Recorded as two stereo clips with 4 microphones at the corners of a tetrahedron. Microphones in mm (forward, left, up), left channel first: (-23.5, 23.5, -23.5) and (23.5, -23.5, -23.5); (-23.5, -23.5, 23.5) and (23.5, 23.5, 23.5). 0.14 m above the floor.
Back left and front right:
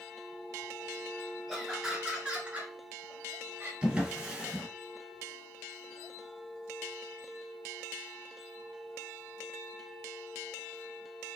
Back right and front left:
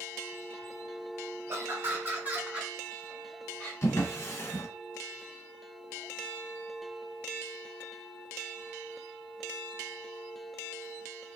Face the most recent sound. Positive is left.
turn(degrees=-115)